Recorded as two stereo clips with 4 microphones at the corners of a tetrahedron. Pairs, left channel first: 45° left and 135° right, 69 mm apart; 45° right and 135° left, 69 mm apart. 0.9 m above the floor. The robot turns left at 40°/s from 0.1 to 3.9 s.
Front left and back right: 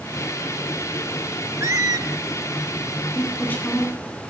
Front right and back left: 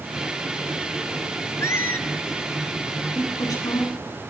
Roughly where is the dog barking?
I don't hear a dog barking.